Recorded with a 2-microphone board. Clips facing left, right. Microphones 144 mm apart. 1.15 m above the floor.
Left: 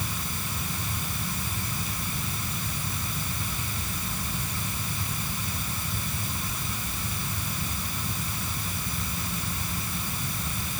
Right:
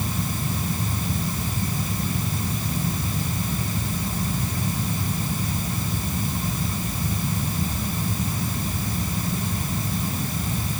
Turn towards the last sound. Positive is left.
No sound to turn to.